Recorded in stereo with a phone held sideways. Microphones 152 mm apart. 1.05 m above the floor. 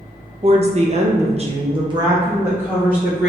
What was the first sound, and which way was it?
A woman speaking, 40° right (ahead or behind).